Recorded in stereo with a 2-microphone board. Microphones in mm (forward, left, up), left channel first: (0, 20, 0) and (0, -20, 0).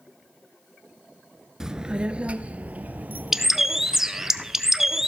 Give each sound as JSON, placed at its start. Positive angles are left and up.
{"t": 1.6, "sound": "a child speaking", "side_deg": -10, "distance_m": 0.8}
{"t": 3.3, "sound": "a bird", "side_deg": -10, "distance_m": 0.8}